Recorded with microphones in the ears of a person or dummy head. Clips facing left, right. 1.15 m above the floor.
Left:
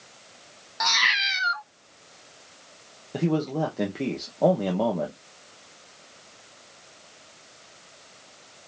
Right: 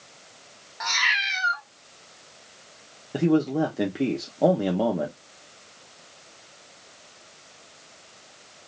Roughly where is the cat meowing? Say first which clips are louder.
Left 3 dB; left.